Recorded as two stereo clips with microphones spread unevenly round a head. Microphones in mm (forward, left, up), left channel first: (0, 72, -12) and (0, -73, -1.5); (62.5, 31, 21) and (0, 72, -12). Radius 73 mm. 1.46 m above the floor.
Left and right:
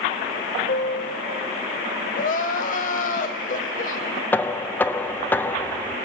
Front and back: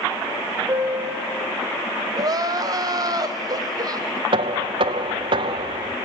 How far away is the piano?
About 5 m.